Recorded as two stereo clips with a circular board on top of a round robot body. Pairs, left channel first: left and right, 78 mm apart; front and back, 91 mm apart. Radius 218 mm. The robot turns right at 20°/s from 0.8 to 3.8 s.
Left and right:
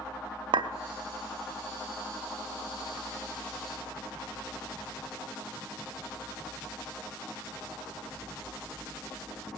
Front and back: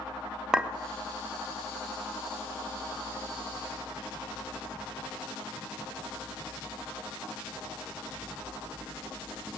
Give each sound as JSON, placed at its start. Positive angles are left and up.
{"t": 0.5, "sound": "a clink", "azimuth_deg": -100, "distance_m": 0.5}